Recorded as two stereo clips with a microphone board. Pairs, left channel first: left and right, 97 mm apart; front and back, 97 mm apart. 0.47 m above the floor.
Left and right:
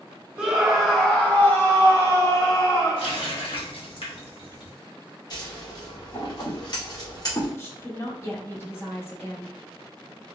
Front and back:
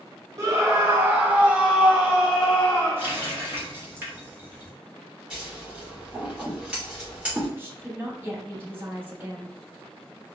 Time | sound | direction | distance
0.4 | a scream | 165° right | 1.1 m
3.0 | a running tap | 110° left | 1.3 m
5.3 | scissors | 105° left | 1.8 m
7.6 | a woman speaking | 130° left | 1.0 m